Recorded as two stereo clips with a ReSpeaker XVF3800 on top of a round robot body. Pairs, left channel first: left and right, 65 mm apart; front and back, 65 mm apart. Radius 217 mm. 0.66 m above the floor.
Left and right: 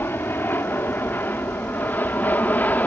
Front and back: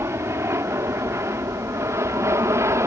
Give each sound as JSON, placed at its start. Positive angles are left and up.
{"t": 0.0, "sound": "an aircraft", "azimuth_deg": 140}